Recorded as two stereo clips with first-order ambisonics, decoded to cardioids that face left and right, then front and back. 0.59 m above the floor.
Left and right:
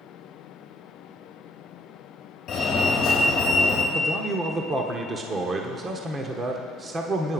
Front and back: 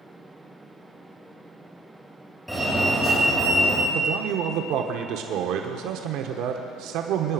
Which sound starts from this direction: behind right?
A man speaking, at 3.9 s.